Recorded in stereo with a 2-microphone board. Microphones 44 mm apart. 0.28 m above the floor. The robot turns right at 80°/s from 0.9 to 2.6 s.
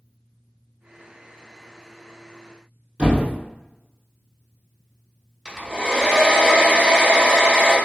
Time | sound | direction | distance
3.0 | a thud | 30° right (ahead or behind) | 2 m
5.5 | a hair dryer | 15° right (ahead or behind) | 2.5 m